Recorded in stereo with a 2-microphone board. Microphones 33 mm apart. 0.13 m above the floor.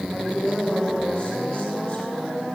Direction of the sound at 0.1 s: 30° left (ahead or behind).